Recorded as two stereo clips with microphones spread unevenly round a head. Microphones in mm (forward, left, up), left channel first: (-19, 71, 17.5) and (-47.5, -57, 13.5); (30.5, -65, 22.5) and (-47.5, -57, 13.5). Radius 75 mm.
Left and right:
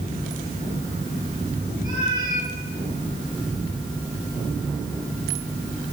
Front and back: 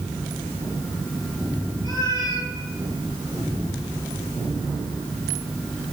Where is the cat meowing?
165° right, 9.5 m.